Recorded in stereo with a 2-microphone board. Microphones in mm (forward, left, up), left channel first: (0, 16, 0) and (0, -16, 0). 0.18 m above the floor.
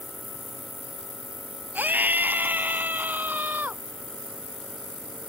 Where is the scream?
70° right (ahead or behind); by 3.8 s 65° right (ahead or behind).